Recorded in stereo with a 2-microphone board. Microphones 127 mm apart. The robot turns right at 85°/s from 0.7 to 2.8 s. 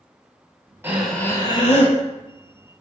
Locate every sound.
0.8 s breathing: 20° right, 0.6 m; by 2.0 s 75° left, 0.6 m